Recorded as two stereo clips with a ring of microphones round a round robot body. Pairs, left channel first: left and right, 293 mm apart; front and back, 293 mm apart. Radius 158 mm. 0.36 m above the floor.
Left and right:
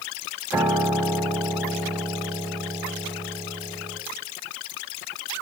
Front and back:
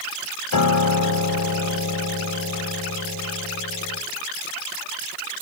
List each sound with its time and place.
0.5 s a piano: 5° right, 2 m